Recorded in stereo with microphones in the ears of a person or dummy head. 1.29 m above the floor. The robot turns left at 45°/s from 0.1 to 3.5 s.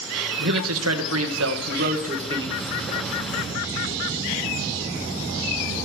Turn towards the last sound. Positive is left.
turn(degrees=155)